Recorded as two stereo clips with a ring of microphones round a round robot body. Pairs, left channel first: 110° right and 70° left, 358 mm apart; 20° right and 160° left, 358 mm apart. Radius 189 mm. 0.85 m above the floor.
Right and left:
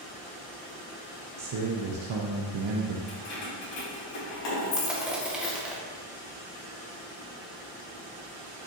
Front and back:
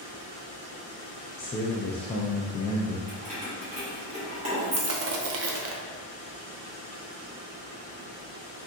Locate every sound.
1.4 s a man speaking: 50° left, 0.6 m
3.1 s keys jangling: 130° right, 1.8 m
4.8 s crushing: 155° left, 0.7 m